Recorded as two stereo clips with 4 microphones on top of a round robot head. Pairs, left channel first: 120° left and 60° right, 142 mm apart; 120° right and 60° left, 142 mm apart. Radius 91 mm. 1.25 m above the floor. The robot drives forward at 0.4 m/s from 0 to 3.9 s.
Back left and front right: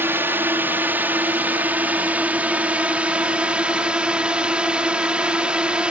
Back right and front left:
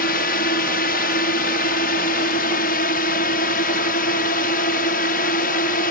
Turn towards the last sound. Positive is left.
turn(degrees=-140)